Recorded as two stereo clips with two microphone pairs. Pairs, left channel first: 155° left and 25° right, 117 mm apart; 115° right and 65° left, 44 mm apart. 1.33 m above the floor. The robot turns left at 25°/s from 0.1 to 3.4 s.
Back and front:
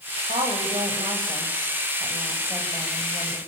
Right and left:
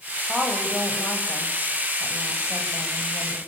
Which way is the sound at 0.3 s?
40° right.